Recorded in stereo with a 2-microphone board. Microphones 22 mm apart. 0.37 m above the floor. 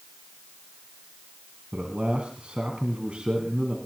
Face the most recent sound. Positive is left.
turn(degrees=-65)  # may be behind; listen again after turning